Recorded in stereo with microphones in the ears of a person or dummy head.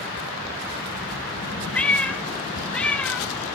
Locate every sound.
1.7 s a cat meowing: 5° left (ahead or behind), 0.5 m